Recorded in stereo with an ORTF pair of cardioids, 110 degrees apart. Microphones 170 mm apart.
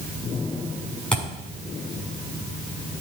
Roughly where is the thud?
Ahead.